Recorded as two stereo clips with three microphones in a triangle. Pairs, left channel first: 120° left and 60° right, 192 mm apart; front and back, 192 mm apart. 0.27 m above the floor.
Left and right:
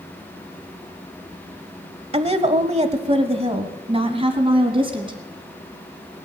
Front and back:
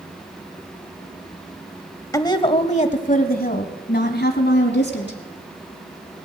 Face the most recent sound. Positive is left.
turn(degrees=0)